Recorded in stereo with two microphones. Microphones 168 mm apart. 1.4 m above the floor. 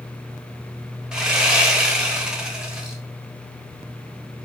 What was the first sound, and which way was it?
Sawing, 5° right (ahead or behind).